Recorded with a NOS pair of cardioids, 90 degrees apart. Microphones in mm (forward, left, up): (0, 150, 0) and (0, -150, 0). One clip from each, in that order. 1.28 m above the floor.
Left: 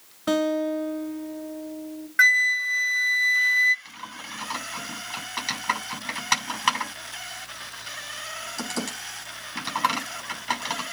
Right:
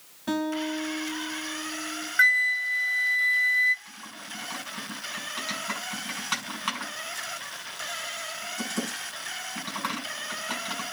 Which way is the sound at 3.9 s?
60° left.